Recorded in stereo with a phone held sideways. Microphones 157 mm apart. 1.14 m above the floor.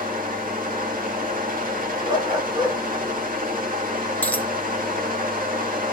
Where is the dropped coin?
10° left (ahead or behind), 0.8 m.